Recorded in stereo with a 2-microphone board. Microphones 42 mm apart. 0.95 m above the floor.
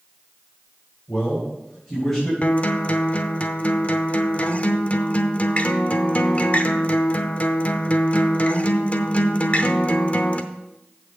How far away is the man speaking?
About 4 m.